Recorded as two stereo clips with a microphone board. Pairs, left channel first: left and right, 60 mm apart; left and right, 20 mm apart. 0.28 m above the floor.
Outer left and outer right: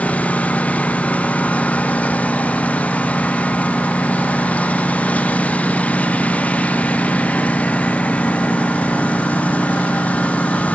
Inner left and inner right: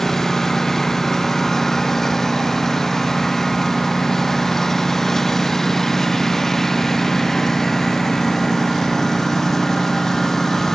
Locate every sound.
0.0 s a lawn mower: 20° left (ahead or behind)